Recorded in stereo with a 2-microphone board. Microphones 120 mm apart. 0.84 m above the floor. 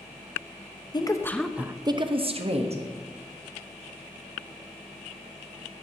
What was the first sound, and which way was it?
A woman speaking, 35° left (ahead or behind).